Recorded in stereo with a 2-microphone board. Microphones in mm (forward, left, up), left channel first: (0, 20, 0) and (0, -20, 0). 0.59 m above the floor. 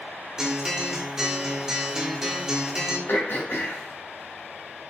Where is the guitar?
15° right (ahead or behind), 1.2 m.